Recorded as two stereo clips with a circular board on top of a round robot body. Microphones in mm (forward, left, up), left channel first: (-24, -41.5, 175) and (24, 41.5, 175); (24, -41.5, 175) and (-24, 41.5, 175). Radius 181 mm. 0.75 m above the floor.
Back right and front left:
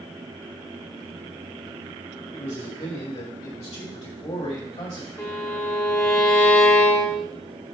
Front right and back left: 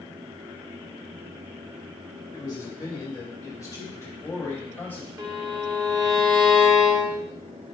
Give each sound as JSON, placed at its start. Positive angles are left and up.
{"t": 2.3, "sound": "a man speaking", "azimuth_deg": -105, "distance_m": 4.0}
{"t": 5.2, "sound": "a violin", "azimuth_deg": 175, "distance_m": 1.3}